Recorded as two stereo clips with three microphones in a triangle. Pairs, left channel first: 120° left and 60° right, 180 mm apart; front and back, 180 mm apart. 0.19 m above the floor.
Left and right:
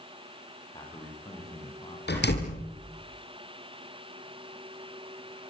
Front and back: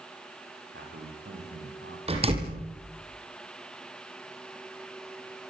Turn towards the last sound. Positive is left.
turn(degrees=125)